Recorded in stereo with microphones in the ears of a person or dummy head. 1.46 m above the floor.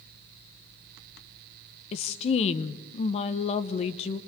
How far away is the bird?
No bird in this recording.